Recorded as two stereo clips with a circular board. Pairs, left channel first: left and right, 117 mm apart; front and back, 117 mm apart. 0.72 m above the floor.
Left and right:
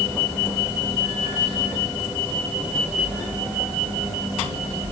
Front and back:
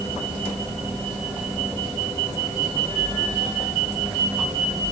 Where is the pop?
I don't hear a pop.